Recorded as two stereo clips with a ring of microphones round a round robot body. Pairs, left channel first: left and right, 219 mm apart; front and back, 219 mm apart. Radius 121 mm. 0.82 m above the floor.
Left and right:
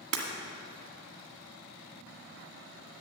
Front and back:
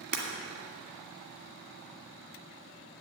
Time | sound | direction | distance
0.1 | breaking glass | 125° right | 1.5 m